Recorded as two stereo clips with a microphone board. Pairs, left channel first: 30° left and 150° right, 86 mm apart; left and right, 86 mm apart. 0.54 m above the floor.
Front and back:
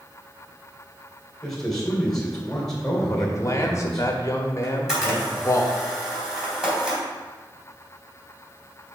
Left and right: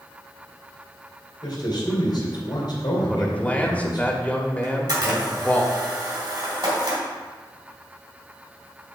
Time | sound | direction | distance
1.4 | a man speaking | 115° left | 3 m
3.1 | a man speaking | 30° left | 1.0 m
4.6 | a camera shutter | 65° right | 3 m